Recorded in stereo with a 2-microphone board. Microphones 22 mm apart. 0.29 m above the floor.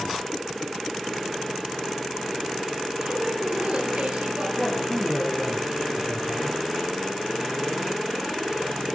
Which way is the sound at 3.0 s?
80° right.